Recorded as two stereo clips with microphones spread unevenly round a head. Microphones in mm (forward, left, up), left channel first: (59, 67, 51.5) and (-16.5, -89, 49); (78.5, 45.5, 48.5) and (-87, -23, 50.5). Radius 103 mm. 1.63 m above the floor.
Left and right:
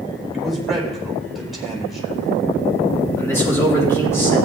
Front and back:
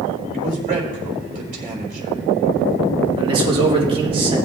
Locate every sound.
0.3 s a man speaking: 155° left, 3.5 m
3.2 s a man speaking: 140° left, 3 m